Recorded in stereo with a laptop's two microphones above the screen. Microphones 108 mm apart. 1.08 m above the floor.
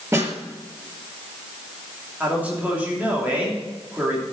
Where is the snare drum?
25° right (ahead or behind), 3.5 m.